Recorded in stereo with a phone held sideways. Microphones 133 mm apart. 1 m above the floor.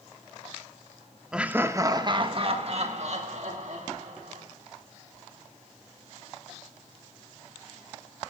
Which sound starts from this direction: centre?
Laughter, at 1.3 s.